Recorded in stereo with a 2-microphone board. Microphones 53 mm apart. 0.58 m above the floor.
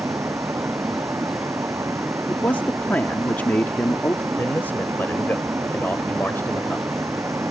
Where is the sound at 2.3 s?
35° left (ahead or behind).